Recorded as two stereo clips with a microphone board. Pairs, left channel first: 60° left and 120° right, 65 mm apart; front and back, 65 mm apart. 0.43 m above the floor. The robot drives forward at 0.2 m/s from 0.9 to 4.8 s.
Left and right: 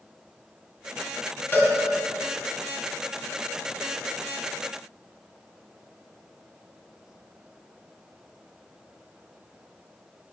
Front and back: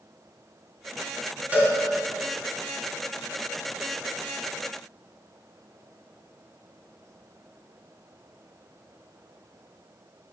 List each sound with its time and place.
1.5 s a cowbell: 110° left, 2.5 m